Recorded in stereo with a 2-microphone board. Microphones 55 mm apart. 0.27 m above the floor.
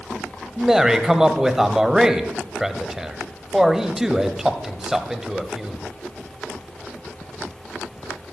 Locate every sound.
0.6 s a man speaking: 10° right (ahead or behind), 1.3 m